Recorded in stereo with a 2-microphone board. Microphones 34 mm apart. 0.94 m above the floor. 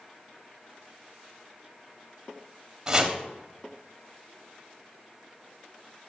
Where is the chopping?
20° right (ahead or behind), 0.9 m.